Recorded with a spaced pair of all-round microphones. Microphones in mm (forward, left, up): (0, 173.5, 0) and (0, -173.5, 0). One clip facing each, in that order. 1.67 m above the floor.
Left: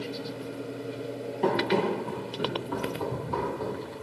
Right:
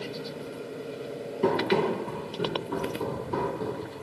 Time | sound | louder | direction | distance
1.4 | running footsteps | right 1 dB | 10° right (ahead or behind) | 2 m